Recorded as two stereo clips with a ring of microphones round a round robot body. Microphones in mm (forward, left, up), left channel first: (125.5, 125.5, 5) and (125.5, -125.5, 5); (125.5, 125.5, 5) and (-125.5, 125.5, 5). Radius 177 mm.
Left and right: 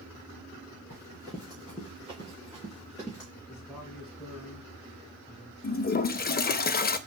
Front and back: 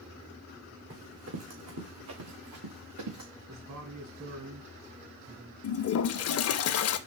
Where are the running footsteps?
150° left, 1.9 m; by 3.3 s 175° right, 3 m.